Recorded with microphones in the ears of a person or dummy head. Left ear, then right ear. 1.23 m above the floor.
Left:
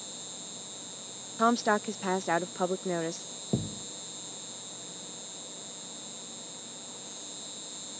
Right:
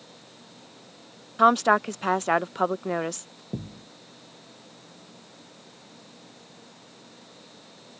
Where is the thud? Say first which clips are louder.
Left 4 dB; 80° left.